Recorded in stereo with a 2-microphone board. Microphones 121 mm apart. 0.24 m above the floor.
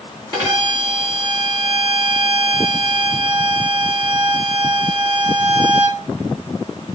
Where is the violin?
35° right (ahead or behind), 2.5 m.